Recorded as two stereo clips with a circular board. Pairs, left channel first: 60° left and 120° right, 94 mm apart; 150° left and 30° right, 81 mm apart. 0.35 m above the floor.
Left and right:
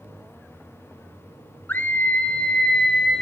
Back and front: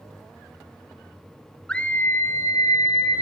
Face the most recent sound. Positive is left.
turn(degrees=145)